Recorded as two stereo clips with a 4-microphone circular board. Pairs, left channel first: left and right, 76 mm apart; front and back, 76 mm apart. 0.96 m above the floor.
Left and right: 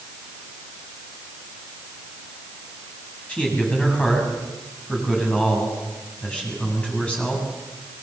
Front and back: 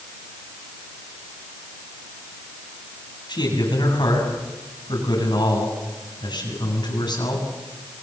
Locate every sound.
3.3 s a man speaking: 15° left, 8 m